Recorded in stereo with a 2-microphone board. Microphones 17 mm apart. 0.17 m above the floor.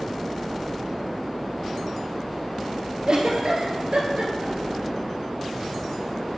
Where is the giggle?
55° right (ahead or behind), 1.6 m.